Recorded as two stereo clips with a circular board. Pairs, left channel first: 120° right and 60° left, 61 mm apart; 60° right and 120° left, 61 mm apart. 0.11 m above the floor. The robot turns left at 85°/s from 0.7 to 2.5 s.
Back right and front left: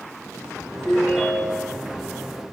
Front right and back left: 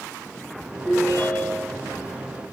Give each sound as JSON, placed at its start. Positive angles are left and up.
{"t": 0.8, "sound": "a ringtone", "azimuth_deg": 5, "distance_m": 3.5}